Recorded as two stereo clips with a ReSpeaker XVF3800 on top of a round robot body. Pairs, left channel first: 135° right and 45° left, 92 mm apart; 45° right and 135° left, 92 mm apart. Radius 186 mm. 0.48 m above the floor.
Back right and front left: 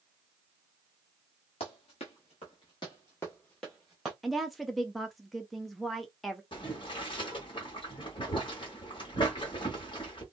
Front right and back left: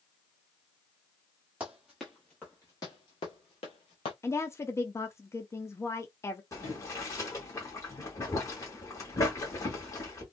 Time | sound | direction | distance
1.6 | running footsteps | 145° right | 0.9 m
4.2 | a woman speaking | 45° right | 0.7 m
6.5 | boiling | 100° right | 1.4 m